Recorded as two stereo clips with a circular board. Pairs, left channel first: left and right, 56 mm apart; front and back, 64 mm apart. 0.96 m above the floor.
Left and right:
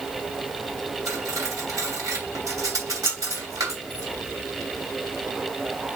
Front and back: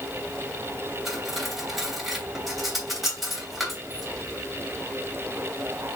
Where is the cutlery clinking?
90° right, 3 m.